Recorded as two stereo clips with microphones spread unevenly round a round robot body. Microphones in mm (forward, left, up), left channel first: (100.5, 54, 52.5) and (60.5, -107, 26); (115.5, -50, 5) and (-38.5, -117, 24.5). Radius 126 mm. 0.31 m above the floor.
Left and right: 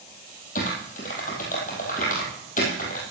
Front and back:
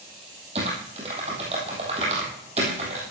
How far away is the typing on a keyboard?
About 2 m.